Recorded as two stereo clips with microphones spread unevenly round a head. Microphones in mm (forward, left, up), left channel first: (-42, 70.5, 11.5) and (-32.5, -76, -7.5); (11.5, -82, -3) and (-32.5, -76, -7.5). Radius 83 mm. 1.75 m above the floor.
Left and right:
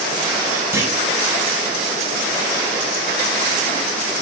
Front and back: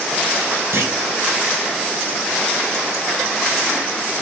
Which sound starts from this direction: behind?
A clunk, at 0.7 s.